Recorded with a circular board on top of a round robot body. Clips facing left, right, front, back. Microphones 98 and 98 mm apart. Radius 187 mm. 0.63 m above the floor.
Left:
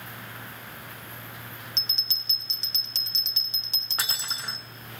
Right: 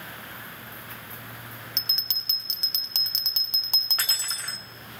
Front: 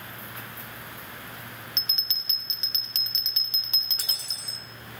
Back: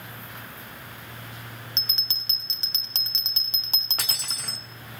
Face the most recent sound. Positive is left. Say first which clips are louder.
# left 2 dB, back 6 dB
turn(degrees=165)